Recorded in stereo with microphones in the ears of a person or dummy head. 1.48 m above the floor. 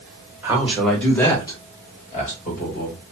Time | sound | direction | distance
0.4 | a man speaking | 15° right (ahead or behind) | 1.2 m